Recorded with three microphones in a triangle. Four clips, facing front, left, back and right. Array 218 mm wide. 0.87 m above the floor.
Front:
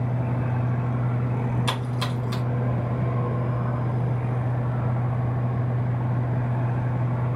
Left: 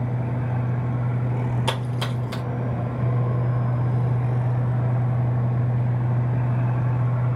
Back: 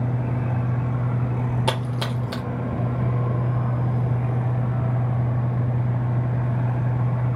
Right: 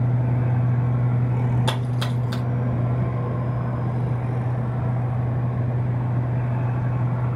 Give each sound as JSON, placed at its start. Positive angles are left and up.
{"t": 1.7, "sound": "a splash", "azimuth_deg": -170, "distance_m": 1.7}